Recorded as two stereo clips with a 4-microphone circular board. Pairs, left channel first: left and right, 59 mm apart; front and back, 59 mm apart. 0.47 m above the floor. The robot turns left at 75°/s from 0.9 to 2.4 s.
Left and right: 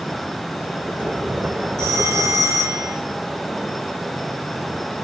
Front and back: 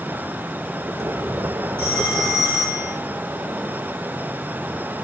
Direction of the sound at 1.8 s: 70° right.